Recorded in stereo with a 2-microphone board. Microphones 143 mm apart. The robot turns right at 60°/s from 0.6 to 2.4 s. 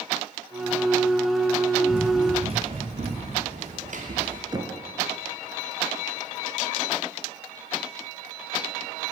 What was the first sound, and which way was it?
Running footsteps, 5° right (ahead or behind).